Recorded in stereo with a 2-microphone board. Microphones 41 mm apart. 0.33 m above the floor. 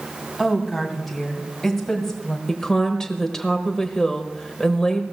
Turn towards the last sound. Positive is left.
turn(degrees=15)  # may be behind; listen again after turning